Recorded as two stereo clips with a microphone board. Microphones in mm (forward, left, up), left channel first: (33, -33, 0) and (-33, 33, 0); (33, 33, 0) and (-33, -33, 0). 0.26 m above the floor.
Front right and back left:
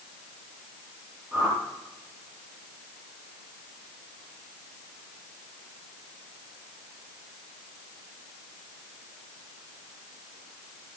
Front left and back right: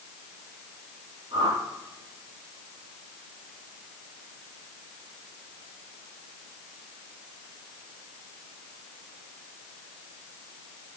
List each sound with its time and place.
1.3 s a whoosh: 170° right, 5 m